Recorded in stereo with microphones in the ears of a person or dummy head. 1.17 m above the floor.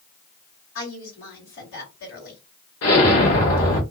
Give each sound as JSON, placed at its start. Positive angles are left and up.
{"t": 0.8, "sound": "a woman speaking", "side_deg": 60, "distance_m": 2.5}
{"t": 2.8, "sound": "an explosion", "side_deg": 70, "distance_m": 1.8}